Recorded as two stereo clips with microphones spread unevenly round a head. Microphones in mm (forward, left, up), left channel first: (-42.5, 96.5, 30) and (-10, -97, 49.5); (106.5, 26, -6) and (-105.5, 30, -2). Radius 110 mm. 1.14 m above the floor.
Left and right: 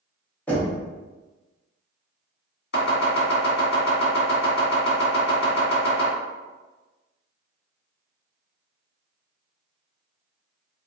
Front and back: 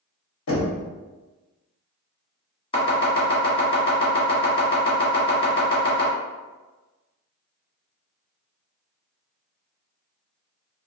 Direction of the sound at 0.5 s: 20° left.